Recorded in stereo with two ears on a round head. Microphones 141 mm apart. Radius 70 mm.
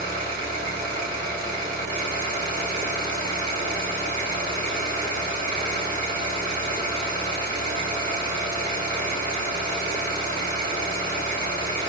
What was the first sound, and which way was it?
An engine running, 70° right (ahead or behind).